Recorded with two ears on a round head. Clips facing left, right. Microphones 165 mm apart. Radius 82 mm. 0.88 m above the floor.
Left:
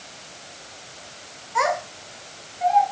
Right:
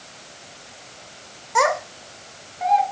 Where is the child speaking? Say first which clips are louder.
Right 3 dB; 60° right (ahead or behind), 1.7 m.